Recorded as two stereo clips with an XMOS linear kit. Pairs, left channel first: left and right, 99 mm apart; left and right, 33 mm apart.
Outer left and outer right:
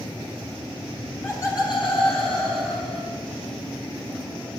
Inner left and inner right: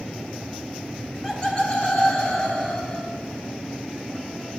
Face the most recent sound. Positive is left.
turn(degrees=70)  # may be behind; listen again after turning